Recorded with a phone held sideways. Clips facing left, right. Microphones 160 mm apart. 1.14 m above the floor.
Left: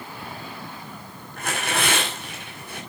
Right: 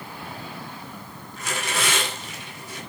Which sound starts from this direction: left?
Tearing paper, at 1.4 s.